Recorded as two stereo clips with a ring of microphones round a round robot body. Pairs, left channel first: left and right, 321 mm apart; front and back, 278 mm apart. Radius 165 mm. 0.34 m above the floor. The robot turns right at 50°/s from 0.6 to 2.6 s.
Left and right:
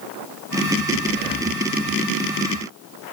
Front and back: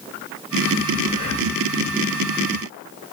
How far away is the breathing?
About 0.6 m.